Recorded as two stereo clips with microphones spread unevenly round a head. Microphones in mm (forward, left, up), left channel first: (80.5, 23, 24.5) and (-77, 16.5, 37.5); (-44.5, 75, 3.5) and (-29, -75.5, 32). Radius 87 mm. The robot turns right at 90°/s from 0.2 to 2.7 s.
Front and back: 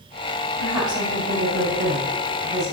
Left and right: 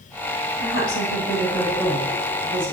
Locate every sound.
0.6 s a woman speaking: 85° left, 3.5 m; by 2.7 s 85° right, 3.5 m